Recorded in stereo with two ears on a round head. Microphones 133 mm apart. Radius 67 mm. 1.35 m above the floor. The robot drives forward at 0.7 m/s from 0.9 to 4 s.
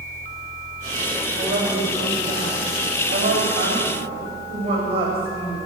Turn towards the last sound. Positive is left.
turn(degrees=-40)  # may be behind; listen again after turning